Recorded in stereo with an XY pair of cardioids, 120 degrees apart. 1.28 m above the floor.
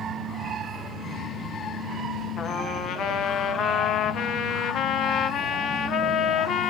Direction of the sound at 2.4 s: 60° left.